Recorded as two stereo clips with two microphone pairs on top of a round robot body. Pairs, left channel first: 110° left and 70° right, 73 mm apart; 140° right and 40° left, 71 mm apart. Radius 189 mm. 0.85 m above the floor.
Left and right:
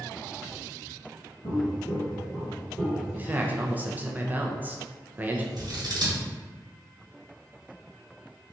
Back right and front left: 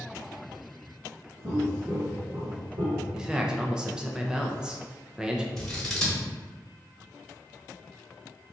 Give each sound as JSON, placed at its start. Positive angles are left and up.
{"t": 1.4, "sound": "footsteps", "azimuth_deg": 95, "distance_m": 1.2}
{"t": 3.1, "sound": "a man speaking", "azimuth_deg": -30, "distance_m": 0.6}
{"t": 5.6, "sound": "scissors", "azimuth_deg": -60, "distance_m": 1.3}